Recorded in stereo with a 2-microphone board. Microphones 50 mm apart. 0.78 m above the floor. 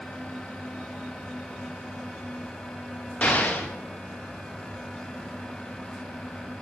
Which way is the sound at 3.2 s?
35° left (ahead or behind).